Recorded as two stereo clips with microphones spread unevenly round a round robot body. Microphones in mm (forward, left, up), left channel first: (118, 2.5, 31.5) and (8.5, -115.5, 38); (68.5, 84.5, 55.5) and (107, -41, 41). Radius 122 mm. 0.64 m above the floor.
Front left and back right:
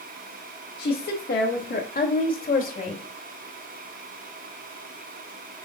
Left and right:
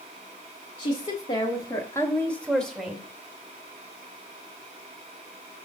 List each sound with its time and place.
0.8 s a woman speaking: 75° left, 1.5 m; by 3.0 s 10° left, 2.0 m